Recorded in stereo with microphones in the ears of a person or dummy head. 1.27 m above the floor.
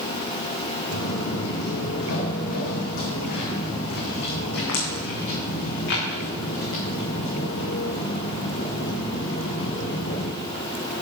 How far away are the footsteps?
About 4 m.